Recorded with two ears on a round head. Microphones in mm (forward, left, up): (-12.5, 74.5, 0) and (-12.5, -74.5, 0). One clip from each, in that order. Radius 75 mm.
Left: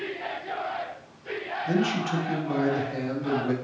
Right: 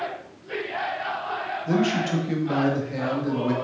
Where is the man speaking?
Centre (ahead or behind), 1.2 m.